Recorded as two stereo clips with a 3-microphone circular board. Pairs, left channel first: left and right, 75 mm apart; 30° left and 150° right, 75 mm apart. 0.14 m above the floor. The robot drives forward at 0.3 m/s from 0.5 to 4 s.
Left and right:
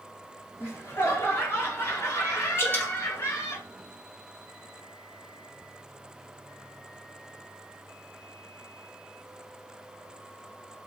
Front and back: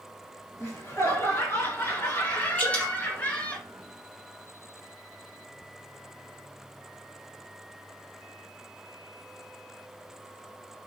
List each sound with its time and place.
0.6 s laughter: 45° left, 2 m; by 3.6 s 80° left, 1.8 m
2.6 s dripping: 75° left, 1.7 m; by 2.9 s 80° left, 1.7 m